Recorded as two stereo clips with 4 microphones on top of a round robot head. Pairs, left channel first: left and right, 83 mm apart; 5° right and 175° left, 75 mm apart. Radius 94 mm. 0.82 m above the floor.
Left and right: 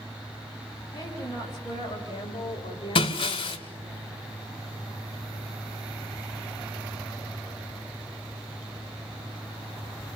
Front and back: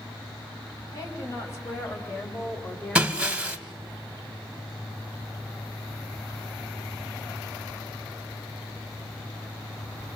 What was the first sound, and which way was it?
A woman speaking, 35° left.